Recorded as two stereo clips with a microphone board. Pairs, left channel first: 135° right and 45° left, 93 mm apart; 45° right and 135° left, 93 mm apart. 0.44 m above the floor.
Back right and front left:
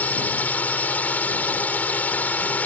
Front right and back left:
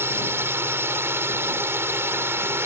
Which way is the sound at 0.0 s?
170° left.